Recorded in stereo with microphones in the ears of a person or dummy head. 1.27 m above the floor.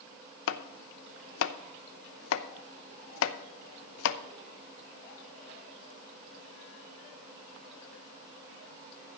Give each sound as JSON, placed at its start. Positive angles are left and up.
{"t": 0.5, "sound": "chopping", "side_deg": 70, "distance_m": 0.7}